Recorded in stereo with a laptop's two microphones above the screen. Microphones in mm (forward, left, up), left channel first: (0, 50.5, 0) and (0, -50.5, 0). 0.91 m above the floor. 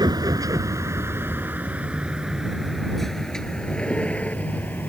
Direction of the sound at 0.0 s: 45° right (ahead or behind).